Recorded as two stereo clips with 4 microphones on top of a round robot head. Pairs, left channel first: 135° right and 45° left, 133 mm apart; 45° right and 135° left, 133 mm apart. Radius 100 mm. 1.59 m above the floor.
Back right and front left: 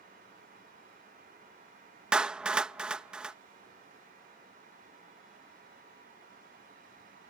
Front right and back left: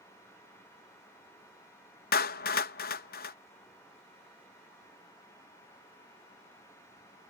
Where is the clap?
40° right.